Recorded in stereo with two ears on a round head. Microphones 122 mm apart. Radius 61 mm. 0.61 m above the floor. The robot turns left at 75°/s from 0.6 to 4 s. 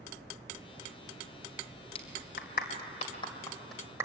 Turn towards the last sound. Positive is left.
turn(degrees=-20)  # may be behind; listen again after turning